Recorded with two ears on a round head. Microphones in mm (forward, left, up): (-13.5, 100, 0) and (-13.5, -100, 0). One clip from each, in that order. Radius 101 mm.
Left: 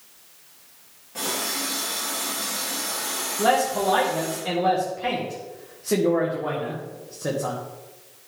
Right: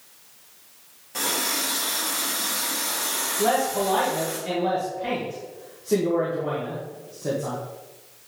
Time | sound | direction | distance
1.1 | a running tap | 60° right (ahead or behind) | 3 m
3.4 | a man speaking | 70° left (ahead or behind) | 1.4 m